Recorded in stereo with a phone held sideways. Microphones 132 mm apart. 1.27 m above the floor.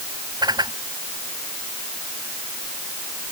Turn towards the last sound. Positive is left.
turn(degrees=-30)  # may be behind; listen again after turning